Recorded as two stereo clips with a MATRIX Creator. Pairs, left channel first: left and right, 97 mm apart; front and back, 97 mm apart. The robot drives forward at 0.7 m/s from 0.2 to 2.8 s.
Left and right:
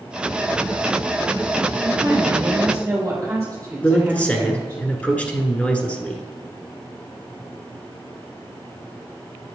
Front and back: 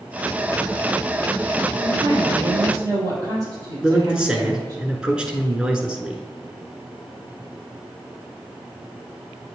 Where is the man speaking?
120° left, 1.1 m.